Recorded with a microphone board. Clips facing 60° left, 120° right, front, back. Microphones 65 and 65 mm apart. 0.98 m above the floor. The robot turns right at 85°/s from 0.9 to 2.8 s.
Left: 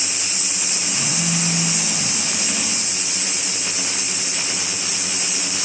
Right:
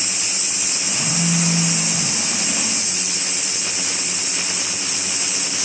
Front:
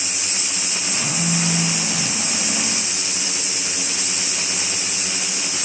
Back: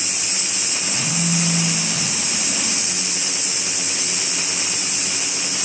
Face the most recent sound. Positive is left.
turn(degrees=0)